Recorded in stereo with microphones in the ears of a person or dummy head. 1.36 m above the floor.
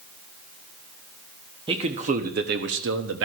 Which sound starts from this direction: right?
A man speaking, at 1.7 s.